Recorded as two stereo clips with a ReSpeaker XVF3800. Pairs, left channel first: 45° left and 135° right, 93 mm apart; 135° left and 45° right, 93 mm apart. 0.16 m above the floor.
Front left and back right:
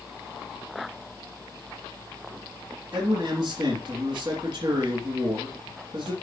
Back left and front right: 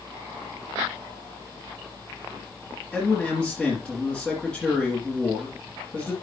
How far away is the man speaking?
About 2.5 m.